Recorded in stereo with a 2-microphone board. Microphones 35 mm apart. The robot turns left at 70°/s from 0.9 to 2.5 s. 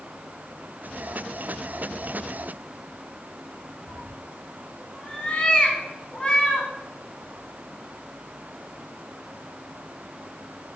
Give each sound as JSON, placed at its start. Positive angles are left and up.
{"t": 3.9, "sound": "a cat meowing", "side_deg": 30, "distance_m": 0.6}